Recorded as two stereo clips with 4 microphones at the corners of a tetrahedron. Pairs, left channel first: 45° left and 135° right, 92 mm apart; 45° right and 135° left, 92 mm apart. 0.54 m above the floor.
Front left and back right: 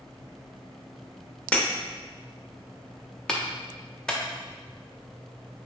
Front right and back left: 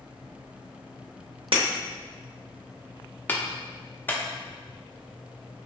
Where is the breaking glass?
120° left, 0.7 m.